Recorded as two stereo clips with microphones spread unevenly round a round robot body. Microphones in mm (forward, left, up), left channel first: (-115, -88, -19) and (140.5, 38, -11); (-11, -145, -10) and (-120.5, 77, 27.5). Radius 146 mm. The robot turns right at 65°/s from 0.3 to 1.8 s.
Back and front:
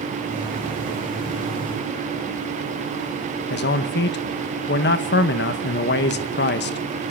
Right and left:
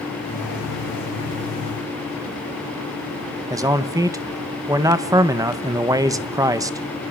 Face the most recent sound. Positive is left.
turn(degrees=-165)